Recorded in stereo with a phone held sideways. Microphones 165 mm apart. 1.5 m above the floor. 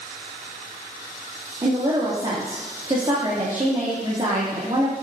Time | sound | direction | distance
1.6 | a woman speaking | 30° right (ahead or behind) | 2.5 m